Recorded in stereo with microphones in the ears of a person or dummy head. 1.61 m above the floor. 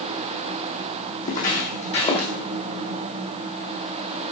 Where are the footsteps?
40° left (ahead or behind), 3 m; by 2.3 s 25° left (ahead or behind), 3 m.